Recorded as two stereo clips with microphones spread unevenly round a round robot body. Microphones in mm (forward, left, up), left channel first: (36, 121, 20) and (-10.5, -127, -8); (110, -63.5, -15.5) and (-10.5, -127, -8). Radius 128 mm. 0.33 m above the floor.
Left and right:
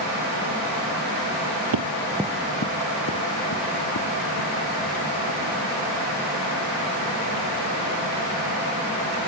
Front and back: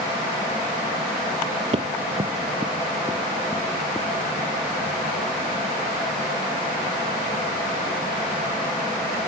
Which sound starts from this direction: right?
Running footsteps, at 1.7 s.